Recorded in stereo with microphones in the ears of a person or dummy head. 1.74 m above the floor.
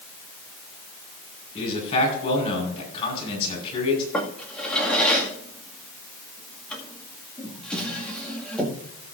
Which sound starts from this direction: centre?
A drawer, at 4.1 s.